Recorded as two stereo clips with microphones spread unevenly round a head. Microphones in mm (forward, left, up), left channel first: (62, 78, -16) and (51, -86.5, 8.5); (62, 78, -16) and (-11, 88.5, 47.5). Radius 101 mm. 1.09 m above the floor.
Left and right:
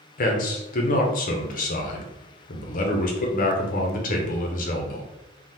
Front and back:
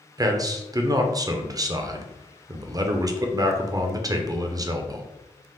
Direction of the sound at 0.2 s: 100° left.